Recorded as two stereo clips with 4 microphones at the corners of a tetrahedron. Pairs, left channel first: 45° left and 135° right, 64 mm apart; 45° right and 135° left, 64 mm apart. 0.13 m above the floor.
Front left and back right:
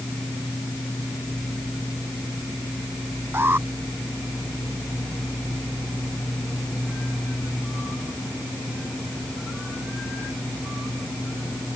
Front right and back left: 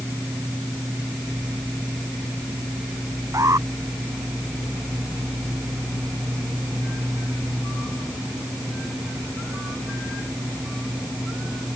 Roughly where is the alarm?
Behind.